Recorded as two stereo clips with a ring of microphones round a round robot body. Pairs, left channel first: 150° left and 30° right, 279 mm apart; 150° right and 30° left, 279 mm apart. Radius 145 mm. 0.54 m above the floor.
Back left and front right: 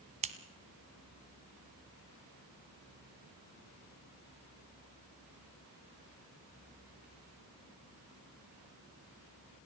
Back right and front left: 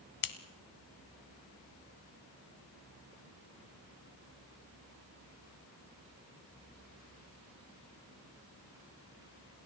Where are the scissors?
100° right, 1.2 m.